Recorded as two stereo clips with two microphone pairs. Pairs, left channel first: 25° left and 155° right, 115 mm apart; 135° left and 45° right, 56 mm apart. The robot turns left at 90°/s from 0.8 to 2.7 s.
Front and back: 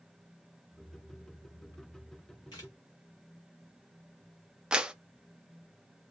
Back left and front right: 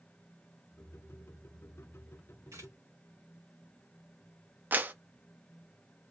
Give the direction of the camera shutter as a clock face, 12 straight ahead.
1 o'clock.